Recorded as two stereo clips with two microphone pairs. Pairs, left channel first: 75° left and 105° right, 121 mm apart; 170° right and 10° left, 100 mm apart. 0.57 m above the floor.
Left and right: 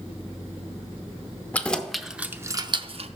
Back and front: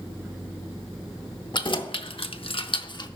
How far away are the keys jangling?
About 0.8 m.